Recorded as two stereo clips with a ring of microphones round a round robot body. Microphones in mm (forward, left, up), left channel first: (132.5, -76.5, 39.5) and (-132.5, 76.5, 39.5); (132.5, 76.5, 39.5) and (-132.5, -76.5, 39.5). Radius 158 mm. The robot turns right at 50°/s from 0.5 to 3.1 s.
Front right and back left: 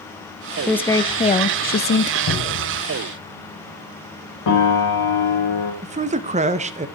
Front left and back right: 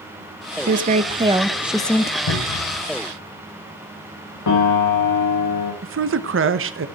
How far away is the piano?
About 3.5 m.